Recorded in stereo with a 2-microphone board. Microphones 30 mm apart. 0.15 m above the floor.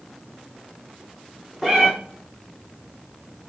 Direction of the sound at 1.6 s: 20° left (ahead or behind).